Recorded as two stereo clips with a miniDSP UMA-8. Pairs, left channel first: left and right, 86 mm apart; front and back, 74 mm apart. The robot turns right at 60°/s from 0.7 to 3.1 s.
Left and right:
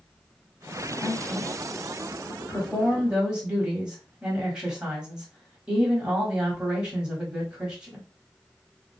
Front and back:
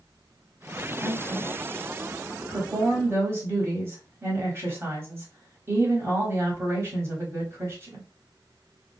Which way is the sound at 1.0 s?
75° left.